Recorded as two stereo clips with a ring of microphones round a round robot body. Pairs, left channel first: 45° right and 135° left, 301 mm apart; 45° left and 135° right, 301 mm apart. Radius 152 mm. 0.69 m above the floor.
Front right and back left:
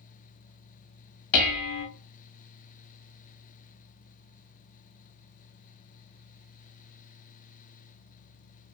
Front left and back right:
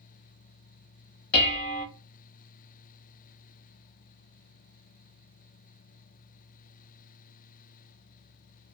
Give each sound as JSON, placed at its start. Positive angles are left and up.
{"t": 1.3, "sound": "dishes clattering", "azimuth_deg": -10, "distance_m": 0.7}